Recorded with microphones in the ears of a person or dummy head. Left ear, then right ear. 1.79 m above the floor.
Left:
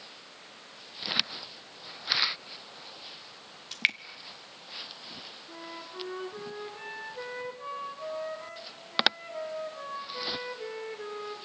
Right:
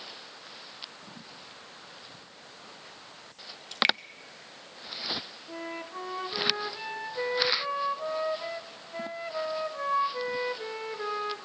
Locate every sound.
3.7 s dripping: 15° left (ahead or behind), 0.7 m
5.5 s a flute: 30° right (ahead or behind), 1.3 m